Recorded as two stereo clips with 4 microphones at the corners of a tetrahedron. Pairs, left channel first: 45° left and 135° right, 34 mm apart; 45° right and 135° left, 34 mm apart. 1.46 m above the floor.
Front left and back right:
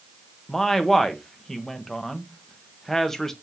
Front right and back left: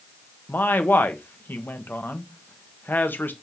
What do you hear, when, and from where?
0.5 s a man speaking: 30° right, 1.2 m